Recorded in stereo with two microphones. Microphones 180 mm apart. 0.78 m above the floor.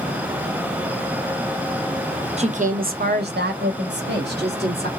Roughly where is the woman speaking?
Right.